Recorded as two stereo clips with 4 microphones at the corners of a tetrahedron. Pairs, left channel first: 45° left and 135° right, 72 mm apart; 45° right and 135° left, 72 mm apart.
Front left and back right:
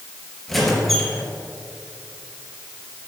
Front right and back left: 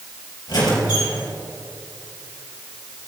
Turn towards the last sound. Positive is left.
turn(degrees=-45)